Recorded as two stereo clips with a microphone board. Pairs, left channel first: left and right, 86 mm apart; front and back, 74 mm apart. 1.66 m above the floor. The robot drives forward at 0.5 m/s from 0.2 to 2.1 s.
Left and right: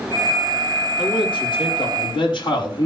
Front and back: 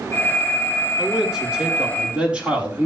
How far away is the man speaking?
About 4.5 m.